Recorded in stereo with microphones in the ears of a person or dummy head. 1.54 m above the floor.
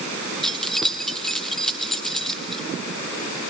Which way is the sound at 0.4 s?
Centre (ahead or behind).